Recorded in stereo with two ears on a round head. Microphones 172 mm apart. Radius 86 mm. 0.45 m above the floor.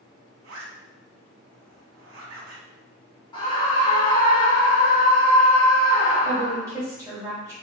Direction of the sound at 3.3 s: 25° left (ahead or behind).